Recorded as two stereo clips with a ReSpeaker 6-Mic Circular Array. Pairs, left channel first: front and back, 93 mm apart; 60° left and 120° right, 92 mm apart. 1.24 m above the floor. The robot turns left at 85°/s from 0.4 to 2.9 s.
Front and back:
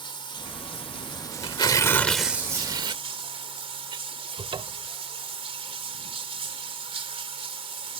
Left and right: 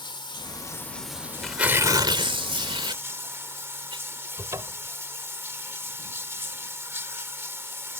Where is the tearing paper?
25° right; by 4.0 s 155° right.